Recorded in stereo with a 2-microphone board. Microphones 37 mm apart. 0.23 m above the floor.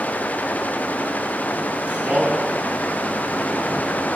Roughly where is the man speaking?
Right.